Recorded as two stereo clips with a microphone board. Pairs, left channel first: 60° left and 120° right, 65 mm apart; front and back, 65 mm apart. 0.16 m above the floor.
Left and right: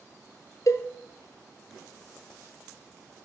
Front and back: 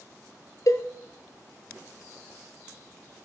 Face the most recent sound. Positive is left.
turn(degrees=30)